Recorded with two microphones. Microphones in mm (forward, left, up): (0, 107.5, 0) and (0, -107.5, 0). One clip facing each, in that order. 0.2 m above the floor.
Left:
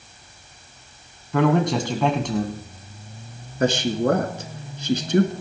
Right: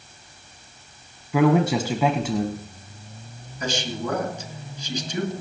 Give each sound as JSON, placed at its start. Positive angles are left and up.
{"t": 1.3, "sound": "a man speaking", "side_deg": -5, "distance_m": 1.3}
{"t": 3.6, "sound": "a man speaking", "side_deg": 60, "distance_m": 2.5}